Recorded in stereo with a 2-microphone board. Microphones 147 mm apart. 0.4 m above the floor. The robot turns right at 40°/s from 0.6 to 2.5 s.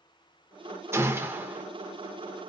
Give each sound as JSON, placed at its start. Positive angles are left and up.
{"t": 0.9, "sound": "a gunshot", "side_deg": -15, "distance_m": 0.6}